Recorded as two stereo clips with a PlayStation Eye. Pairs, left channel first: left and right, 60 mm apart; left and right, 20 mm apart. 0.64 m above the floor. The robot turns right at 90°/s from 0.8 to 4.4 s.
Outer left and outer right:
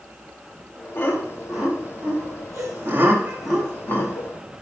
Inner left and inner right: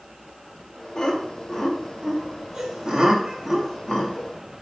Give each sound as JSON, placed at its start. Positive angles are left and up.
{"t": 0.9, "sound": "laughter", "side_deg": 45, "distance_m": 3.0}